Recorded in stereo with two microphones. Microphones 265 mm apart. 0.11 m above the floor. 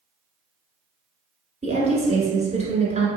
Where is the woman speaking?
25° right (ahead or behind), 1.3 m.